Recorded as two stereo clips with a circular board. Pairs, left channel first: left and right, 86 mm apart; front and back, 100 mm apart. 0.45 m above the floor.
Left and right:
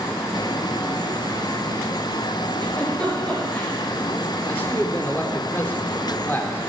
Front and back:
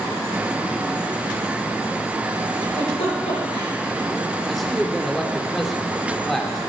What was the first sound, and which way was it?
A giggle, 10° left.